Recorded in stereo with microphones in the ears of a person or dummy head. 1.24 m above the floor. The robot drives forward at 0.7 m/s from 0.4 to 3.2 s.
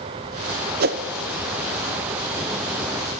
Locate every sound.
0.8 s a whoosh: 45° right (ahead or behind), 0.7 m; by 1.0 s 50° right (ahead or behind), 0.6 m